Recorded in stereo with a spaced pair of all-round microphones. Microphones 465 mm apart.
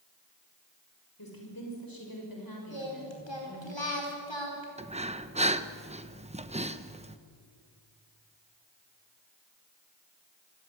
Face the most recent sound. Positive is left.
turn(degrees=-15)  # may be behind; listen again after turning